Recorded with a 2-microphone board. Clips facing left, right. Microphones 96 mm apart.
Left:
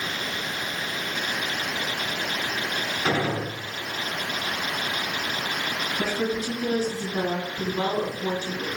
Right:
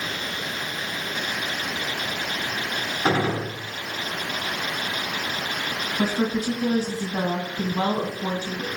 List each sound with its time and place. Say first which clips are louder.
3.0 s a gunshot: right 3 dB; 35° right (ahead or behind), 1.1 m
6.0 s a woman speaking: right 4 dB; 35° right (ahead or behind), 1.7 m